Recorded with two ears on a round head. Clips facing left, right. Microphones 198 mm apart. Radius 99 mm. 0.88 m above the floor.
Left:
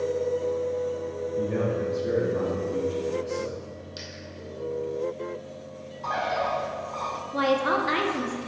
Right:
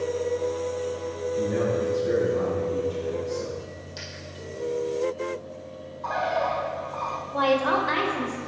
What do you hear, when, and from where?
1.4 s a man speaking: 40° left (ahead or behind), 2.5 m
4.0 s a dropped coin: 20° left (ahead or behind), 2 m
6.0 s a bird: 35° left (ahead or behind), 0.6 m
7.3 s a woman speaking: 30° left (ahead or behind), 1.2 m